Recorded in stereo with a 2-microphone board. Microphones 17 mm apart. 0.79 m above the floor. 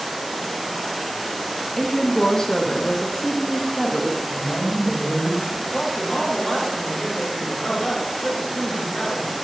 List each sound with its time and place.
1.8 s a woman speaking: 30° left (ahead or behind), 1.0 m
4.3 s a woman speaking: centre (ahead or behind), 4.5 m
5.6 s a man speaking: 15° left (ahead or behind), 4 m